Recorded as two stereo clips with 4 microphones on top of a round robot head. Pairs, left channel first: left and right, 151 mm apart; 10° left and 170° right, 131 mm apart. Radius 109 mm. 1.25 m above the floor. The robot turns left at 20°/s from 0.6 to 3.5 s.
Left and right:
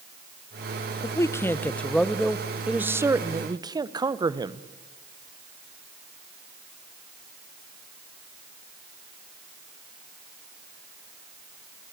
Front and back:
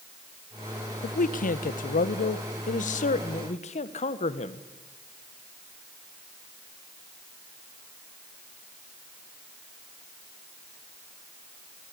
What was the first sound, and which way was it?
A man speaking, 25° left.